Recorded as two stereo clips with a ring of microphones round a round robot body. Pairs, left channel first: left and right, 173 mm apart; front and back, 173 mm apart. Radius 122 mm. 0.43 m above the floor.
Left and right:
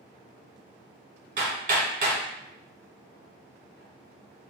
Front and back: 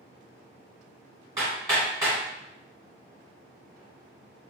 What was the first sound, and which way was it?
Hammering, 110° right.